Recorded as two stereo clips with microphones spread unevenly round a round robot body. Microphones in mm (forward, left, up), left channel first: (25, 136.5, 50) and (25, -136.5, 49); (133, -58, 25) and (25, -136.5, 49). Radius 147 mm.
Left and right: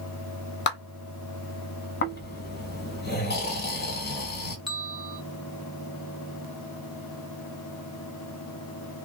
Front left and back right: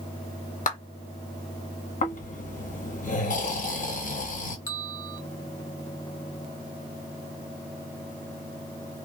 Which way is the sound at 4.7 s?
5° right.